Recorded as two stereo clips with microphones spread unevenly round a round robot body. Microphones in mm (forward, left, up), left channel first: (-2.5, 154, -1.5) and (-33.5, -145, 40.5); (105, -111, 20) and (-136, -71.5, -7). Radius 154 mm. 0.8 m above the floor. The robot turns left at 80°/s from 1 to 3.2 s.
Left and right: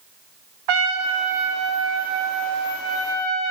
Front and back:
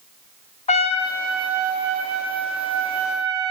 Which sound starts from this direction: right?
A trumpet, at 0.7 s.